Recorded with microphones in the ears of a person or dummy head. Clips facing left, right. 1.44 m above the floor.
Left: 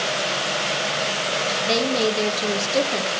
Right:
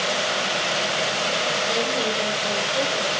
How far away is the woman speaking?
About 1.5 m.